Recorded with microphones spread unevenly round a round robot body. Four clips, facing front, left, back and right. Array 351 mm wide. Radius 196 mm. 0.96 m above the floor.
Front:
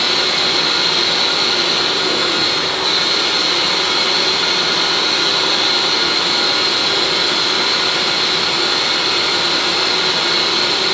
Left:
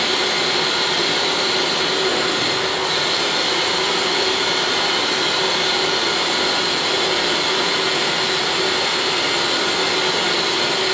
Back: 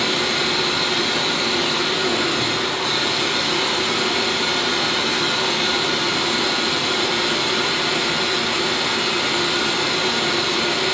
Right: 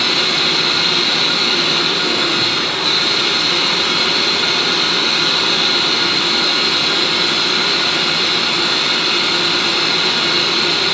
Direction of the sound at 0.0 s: 110° right.